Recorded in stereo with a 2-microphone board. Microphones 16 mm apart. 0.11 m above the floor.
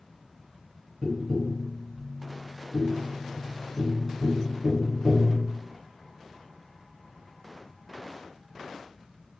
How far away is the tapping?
About 1.7 m.